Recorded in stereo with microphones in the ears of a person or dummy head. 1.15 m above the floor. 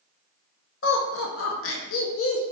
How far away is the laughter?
About 0.6 m.